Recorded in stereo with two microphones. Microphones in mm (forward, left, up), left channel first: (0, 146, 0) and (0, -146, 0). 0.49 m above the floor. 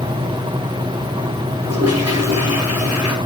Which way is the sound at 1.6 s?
60° right (ahead or behind).